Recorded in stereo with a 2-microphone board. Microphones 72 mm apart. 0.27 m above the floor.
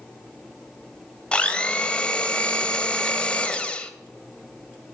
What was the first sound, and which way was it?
A blender, 15° left (ahead or behind).